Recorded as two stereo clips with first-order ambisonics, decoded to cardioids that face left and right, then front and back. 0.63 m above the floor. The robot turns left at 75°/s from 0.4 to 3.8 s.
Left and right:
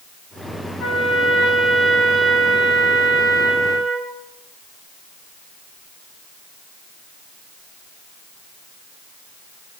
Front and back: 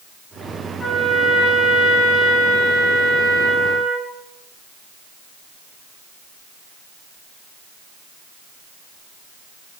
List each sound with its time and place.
0.8 s a trumpet: 85° left, 1.5 m; by 4.1 s 140° right, 1.5 m